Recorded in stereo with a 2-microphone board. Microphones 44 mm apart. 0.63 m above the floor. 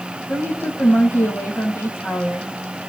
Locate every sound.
0.3 s a woman speaking: 65° left (ahead or behind), 4 m